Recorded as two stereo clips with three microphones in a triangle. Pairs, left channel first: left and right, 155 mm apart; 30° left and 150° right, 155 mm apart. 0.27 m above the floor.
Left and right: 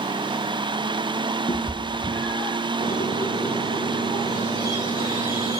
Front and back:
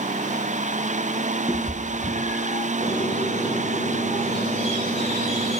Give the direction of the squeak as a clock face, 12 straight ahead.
9 o'clock.